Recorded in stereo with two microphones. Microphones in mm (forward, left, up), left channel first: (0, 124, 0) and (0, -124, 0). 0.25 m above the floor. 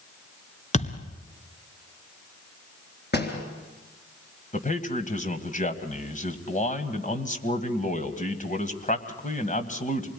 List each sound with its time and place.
0.7 s a thud: 30° left (ahead or behind), 1.7 m
3.1 s a door slam: 45° left (ahead or behind), 3.5 m
4.5 s a man speaking: 30° left (ahead or behind), 1.9 m